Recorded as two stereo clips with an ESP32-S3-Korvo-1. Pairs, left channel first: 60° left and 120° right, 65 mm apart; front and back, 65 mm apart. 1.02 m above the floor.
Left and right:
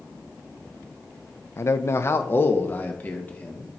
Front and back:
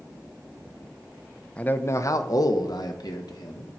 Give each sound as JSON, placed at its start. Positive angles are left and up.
{"t": 1.6, "sound": "a man speaking", "azimuth_deg": 60, "distance_m": 0.6}